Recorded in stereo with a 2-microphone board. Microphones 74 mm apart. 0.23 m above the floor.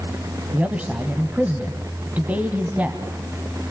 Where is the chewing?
I don't hear chewing.